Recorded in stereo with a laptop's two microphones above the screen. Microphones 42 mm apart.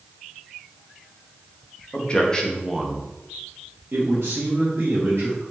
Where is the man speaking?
30° left (ahead or behind), 1.0 m; by 5.4 s 80° right, 1.8 m.